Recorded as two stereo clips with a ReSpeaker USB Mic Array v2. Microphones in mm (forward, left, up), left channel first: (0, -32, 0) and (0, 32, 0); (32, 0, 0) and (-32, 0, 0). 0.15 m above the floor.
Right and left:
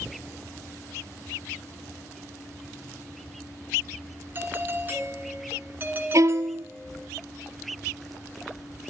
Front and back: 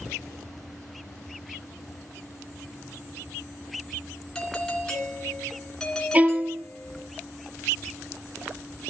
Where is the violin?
115° left, 0.7 m.